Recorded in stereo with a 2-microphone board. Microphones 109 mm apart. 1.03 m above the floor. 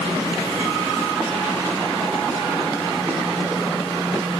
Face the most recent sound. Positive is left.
No sound to turn to.